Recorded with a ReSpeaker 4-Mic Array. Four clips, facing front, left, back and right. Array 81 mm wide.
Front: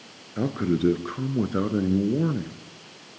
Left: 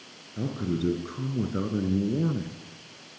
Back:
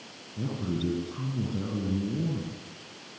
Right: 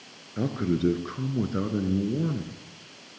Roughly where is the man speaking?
Ahead right.